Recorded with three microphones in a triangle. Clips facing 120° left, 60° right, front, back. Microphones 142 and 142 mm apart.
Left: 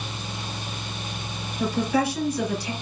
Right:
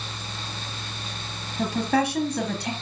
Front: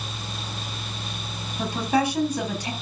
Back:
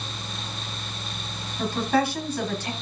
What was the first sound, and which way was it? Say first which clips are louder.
A woman speaking: even, even; 75° right.